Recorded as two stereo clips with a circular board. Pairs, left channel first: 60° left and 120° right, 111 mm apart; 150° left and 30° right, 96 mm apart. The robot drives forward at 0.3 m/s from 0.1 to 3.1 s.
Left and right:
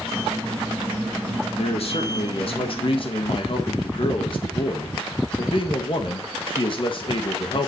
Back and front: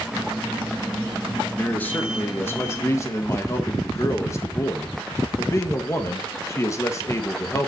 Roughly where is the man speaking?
Left.